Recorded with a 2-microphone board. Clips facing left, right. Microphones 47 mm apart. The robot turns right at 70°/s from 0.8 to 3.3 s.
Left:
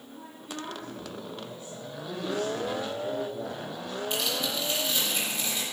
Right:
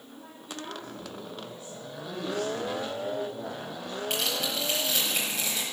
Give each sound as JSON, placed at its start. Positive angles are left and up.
{"t": 0.1, "sound": "a woman speaking", "azimuth_deg": 95, "distance_m": 5.0}
{"t": 1.9, "sound": "a man speaking", "azimuth_deg": -165, "distance_m": 5.5}
{"t": 4.1, "sound": "tearing paper", "side_deg": -70, "distance_m": 5.5}